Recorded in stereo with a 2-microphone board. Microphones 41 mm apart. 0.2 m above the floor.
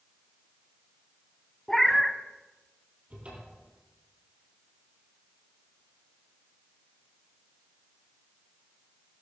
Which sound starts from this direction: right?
A cupboard door, at 3.1 s.